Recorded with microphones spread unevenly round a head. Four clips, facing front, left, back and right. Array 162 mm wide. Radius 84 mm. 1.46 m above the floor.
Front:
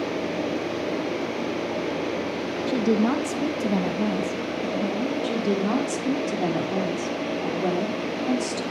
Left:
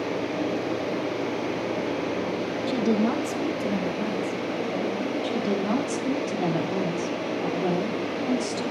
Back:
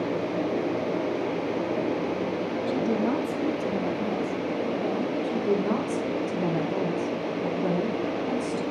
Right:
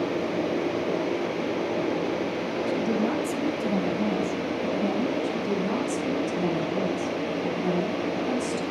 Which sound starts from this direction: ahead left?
A woman speaking, at 2.7 s.